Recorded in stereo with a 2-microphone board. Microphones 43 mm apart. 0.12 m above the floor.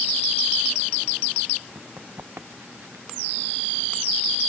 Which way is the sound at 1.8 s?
70° right (ahead or behind).